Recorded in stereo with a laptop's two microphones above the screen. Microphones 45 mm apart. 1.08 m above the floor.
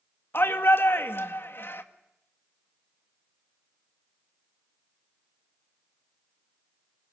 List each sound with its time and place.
0.3 s a shout: 60° left (ahead or behind), 2.0 m